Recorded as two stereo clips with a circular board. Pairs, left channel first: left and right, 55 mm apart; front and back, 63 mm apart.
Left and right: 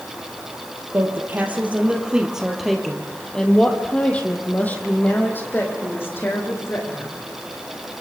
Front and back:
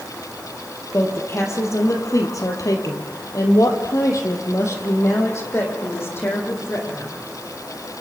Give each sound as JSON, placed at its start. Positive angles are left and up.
{"t": 0.9, "sound": "a woman speaking", "azimuth_deg": -45, "distance_m": 3.5}